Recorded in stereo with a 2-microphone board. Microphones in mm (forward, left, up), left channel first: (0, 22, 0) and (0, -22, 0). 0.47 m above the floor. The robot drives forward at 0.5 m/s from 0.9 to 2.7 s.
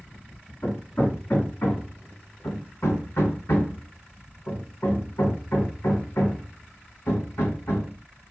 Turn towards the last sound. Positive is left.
turn(degrees=75)  # may be behind; listen again after turning